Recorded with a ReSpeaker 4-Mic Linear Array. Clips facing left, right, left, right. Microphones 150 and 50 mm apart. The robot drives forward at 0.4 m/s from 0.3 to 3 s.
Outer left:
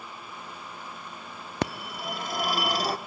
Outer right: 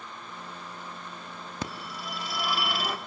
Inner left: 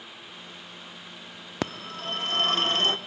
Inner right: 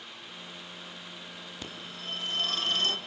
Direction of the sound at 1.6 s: 70° left (ahead or behind).